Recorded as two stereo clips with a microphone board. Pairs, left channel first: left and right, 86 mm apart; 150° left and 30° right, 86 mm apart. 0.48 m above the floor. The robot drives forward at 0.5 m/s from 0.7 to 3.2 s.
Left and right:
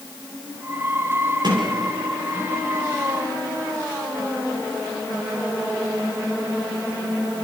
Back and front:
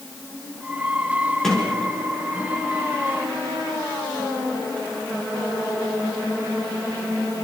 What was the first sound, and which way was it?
A sliding door, 125° right.